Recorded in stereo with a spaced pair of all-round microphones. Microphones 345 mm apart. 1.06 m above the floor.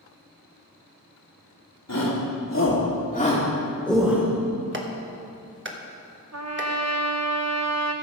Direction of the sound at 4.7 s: 35° right (ahead or behind).